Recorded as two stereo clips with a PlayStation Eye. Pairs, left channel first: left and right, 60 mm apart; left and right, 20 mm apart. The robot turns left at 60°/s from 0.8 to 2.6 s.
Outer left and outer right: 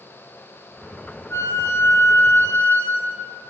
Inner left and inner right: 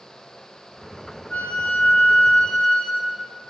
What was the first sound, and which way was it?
A flute, 115° left.